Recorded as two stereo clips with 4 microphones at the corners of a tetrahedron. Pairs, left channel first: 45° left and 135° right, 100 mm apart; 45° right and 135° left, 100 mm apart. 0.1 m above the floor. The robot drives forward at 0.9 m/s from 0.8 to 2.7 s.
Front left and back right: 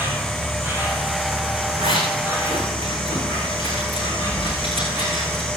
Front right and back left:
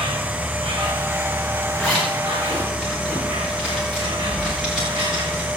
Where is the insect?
160° left, 8 m; by 5.6 s 165° left, 10 m.